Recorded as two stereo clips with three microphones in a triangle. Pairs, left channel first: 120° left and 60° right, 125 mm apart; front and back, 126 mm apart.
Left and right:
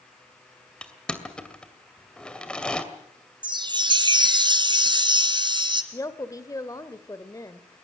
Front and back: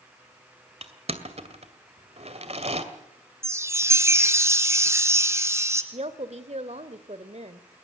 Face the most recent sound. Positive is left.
turn(degrees=180)